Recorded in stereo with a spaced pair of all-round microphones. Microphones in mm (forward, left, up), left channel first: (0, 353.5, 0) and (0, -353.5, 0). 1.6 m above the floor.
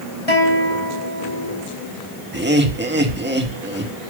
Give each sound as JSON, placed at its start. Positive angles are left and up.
{"t": 0.3, "sound": "a guitar", "side_deg": 55, "distance_m": 5.0}
{"t": 2.3, "sound": "laughter", "side_deg": -15, "distance_m": 2.0}